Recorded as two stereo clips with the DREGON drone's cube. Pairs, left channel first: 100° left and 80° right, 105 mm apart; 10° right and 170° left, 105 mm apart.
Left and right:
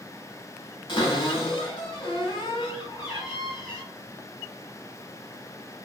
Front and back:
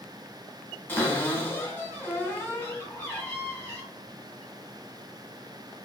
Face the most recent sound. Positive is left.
turn(degrees=60)